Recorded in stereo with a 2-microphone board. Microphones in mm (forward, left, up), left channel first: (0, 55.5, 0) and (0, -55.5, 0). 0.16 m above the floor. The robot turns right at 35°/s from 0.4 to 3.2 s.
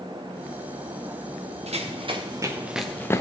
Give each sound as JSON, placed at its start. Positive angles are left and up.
{"t": 1.7, "sound": "running footsteps", "side_deg": -75, "distance_m": 2.0}